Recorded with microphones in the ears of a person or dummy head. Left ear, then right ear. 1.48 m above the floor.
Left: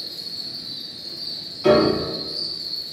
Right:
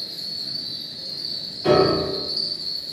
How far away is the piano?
About 1.7 m.